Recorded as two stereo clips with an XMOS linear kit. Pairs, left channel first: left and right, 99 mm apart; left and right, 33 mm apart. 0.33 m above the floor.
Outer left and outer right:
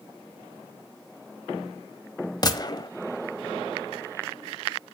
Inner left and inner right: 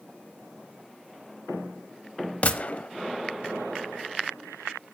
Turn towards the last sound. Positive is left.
turn(degrees=40)  # may be behind; listen again after turning